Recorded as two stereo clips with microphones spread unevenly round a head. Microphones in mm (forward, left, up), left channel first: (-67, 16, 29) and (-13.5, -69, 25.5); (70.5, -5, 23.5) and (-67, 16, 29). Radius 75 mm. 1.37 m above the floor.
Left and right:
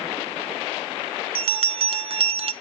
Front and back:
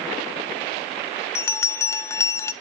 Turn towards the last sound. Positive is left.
turn(degrees=-80)